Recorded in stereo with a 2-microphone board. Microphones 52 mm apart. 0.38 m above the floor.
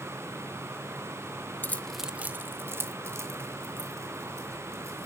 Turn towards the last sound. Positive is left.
turn(degrees=-75)  # may be behind; listen again after turning